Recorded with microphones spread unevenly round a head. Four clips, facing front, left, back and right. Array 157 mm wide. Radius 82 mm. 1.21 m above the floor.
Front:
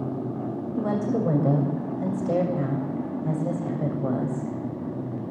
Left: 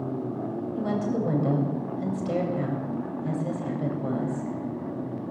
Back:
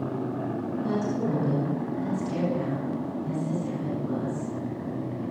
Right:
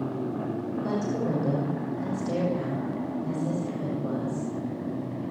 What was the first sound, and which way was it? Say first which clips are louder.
A woman speaking: left 2 dB, front 4 dB; 15° left.